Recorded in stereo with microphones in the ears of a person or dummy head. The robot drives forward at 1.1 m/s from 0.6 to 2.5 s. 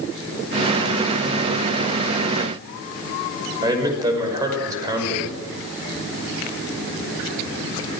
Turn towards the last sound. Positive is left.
turn(degrees=-30)  # may be behind; listen again after turning